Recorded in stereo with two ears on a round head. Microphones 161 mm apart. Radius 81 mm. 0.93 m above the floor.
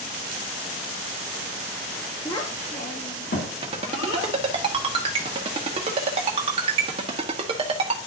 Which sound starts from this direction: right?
A ringtone, at 3.6 s.